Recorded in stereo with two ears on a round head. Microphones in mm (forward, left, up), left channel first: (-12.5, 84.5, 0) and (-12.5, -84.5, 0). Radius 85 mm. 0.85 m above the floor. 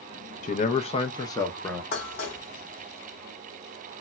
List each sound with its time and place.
0.4 s a man speaking: 40° left (ahead or behind), 0.5 m; by 1.8 s 10° left (ahead or behind), 0.8 m
1.9 s dishes clattering: 60° left (ahead or behind), 1.2 m